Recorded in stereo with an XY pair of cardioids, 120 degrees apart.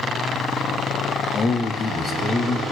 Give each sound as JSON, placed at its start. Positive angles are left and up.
{"t": 1.3, "sound": "a man speaking", "azimuth_deg": 35, "distance_m": 1.5}